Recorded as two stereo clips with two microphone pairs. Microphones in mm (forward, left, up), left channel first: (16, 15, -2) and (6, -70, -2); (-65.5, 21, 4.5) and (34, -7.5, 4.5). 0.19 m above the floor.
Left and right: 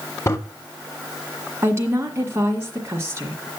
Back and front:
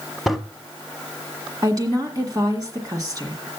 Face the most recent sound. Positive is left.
turn(degrees=-50)